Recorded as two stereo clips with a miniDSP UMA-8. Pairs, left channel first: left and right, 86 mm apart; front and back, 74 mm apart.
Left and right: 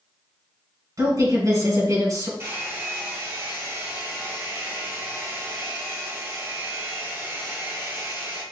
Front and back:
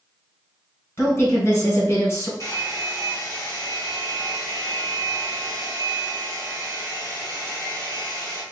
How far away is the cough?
No cough in this recording.